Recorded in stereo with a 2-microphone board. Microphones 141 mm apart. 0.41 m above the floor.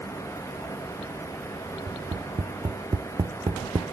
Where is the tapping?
30° right (ahead or behind).